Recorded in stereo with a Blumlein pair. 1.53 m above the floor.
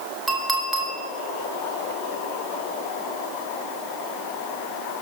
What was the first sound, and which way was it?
A clink, 5° right.